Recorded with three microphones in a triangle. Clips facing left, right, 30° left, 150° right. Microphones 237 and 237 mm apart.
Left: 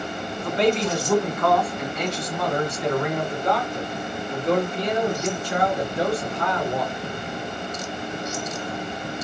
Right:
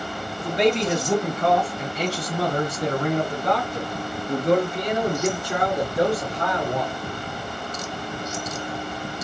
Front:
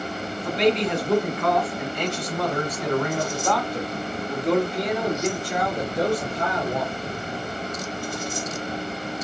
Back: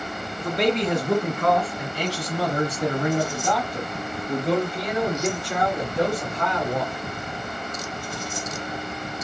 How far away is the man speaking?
About 2.0 m.